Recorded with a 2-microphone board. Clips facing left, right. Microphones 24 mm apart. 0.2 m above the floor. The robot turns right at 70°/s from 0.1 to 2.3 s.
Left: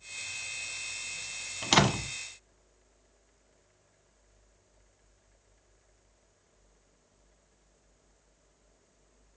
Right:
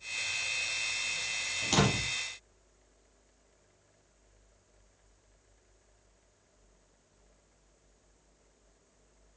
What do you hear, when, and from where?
1.6 s a door slam: 35° left (ahead or behind), 1.2 m; by 2.1 s 40° left (ahead or behind), 1.2 m